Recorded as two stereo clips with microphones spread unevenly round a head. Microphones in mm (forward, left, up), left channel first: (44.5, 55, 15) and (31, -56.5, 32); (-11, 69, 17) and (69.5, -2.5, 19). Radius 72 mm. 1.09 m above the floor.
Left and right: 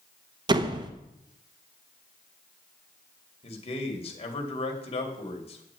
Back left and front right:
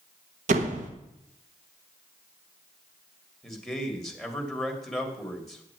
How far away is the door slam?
About 1.0 m.